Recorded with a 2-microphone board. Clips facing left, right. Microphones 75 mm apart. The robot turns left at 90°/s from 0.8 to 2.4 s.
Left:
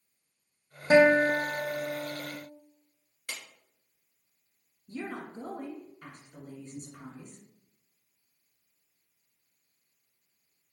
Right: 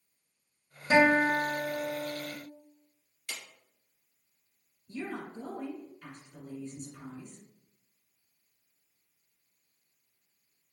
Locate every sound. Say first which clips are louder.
0.9 s a guitar: left 3 dB; 135° left, 1.7 m; by 2.4 s 5° left, 1.7 m
3.3 s a clap: left 1 dB; 55° left (ahead or behind), 1.9 m
4.9 s a woman speaking: even; 55° left (ahead or behind), 1.7 m